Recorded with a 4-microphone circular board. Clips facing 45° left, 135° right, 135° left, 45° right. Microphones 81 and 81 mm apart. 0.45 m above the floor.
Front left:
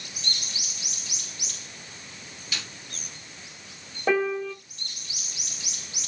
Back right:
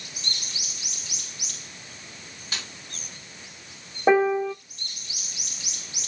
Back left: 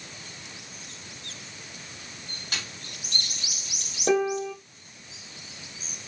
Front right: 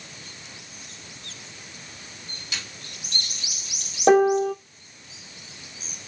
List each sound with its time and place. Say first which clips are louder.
2.5 s a snare drum: even, back left 1 dB; straight behind, 5 m
4.1 s a piano: back right 5 dB, front right 7 dB; 70° right, 0.6 m